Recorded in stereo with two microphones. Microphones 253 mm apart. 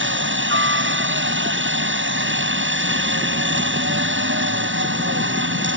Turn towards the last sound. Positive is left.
turn(degrees=-50)  # may be behind; listen again after turning